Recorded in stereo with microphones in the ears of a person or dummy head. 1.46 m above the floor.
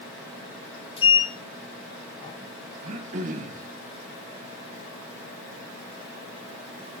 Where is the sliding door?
25° left (ahead or behind), 1.1 m.